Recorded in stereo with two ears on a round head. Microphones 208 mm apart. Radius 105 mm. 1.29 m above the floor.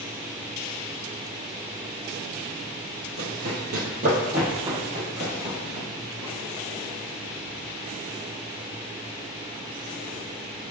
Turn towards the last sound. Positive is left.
turn(degrees=-10)  # may be behind; listen again after turning